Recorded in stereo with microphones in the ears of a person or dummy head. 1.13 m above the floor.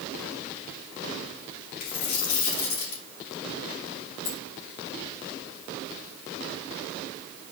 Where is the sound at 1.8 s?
50° left (ahead or behind), 3.5 m.